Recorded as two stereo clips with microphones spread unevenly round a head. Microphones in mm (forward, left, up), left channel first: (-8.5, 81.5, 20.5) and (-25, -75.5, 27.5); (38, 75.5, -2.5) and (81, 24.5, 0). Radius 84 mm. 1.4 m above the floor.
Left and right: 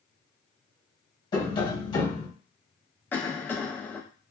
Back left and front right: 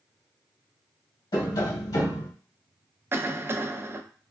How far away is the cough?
About 0.6 m.